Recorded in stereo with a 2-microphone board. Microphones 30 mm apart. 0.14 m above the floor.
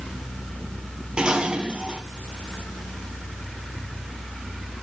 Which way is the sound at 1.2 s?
35° right (ahead or behind).